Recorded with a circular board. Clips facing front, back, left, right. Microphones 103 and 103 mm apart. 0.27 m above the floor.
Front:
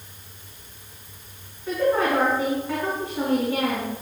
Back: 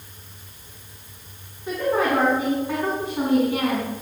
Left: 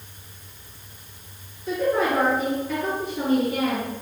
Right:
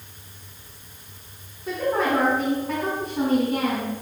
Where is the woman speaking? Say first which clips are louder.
Even, left 1 dB; 115° right, 2 m.